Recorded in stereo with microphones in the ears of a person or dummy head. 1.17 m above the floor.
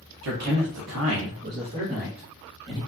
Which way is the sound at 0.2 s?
60° right (ahead or behind).